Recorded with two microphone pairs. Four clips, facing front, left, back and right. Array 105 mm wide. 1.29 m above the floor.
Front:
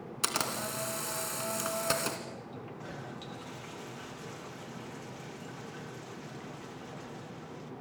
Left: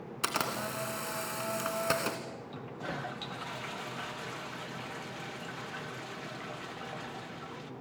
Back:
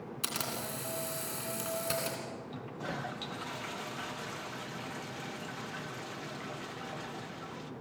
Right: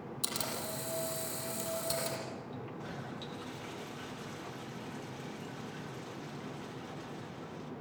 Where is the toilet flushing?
130° left, 1.5 m.